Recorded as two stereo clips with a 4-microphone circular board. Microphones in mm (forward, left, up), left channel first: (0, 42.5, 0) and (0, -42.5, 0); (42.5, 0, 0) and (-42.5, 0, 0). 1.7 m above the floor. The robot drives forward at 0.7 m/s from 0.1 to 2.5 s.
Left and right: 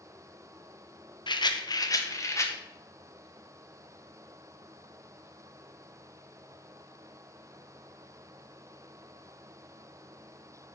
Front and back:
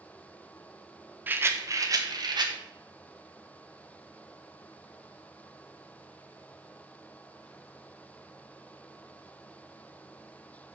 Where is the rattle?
110° left, 0.9 m; by 2.5 s 145° left, 1.5 m.